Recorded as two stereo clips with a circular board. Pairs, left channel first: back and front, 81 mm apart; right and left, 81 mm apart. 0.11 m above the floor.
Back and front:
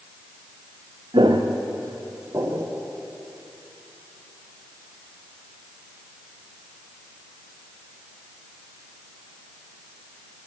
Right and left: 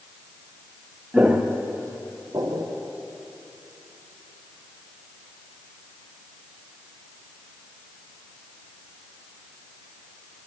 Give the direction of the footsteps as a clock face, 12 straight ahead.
12 o'clock.